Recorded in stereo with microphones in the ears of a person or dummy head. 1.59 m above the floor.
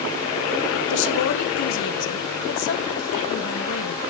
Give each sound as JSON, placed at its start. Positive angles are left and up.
{"t": 0.9, "sound": "a woman speaking", "side_deg": 65, "distance_m": 1.3}